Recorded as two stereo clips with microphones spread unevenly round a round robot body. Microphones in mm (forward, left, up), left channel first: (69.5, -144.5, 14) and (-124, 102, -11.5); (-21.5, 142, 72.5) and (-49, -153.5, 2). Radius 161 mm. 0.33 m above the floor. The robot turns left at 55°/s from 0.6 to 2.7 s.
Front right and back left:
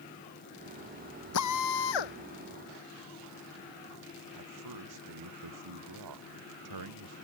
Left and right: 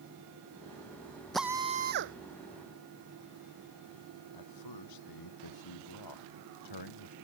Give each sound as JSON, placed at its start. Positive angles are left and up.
{"t": 1.3, "sound": "a drill", "azimuth_deg": -5}
{"t": 4.3, "sound": "a man speaking", "azimuth_deg": 95}